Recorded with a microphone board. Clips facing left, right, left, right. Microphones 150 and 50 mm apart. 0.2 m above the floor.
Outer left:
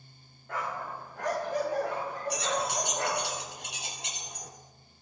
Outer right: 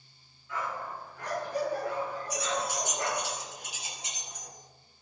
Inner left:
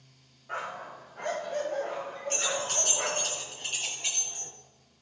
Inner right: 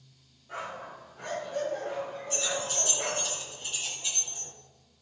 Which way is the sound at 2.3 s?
65° left (ahead or behind).